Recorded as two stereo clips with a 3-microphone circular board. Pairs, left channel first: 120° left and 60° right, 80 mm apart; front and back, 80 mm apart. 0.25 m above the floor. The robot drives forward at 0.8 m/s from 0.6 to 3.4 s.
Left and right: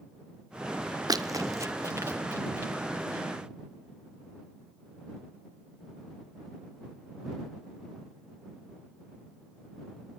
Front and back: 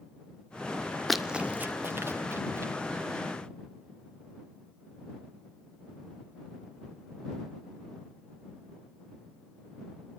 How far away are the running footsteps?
About 0.5 m.